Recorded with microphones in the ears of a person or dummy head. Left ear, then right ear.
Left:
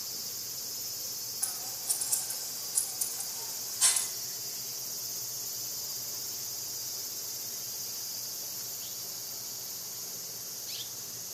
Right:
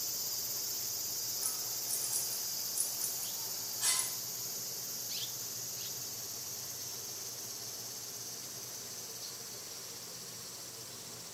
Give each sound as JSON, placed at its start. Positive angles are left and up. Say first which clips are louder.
{"t": 1.4, "sound": "scissors", "louder": "left 2 dB", "side_deg": 35, "distance_m": 1.9}